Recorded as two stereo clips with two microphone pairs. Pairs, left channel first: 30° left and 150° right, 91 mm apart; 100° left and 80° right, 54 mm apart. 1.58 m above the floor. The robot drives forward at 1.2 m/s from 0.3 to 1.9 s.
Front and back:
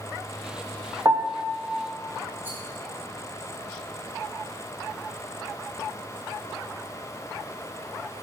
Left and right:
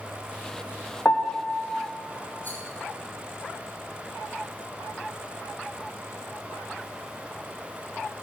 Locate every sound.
1.1 s a piano: 155° left, 0.6 m; by 1.5 s 165° left, 1.2 m
2.4 s a rattle: 145° left, 4 m